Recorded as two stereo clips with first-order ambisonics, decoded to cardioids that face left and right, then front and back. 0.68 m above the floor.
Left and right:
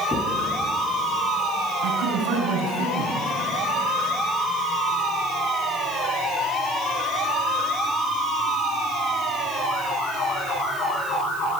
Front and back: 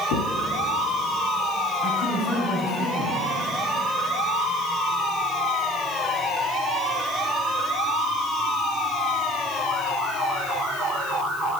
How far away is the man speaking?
About 7.5 m.